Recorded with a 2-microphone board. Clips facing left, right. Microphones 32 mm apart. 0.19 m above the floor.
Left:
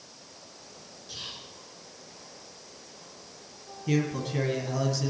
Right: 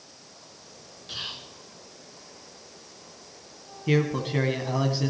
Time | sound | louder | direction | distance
1.1 | whispering | right 5 dB | 45° right (ahead or behind) | 2.5 m
3.9 | a man speaking | right 4 dB | 30° right (ahead or behind) | 1.7 m